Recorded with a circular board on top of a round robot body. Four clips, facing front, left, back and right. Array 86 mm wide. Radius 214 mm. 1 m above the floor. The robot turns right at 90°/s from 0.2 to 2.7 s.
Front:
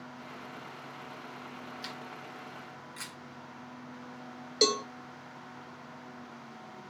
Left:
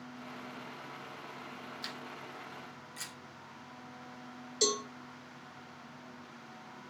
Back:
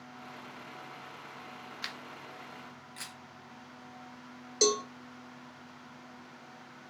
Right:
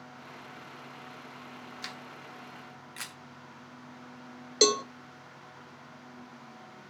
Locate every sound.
1.8 s a camera shutter: 170° right, 1.1 m; by 3.2 s 90° right, 1.1 m
4.6 s a cowbell: 80° right, 0.8 m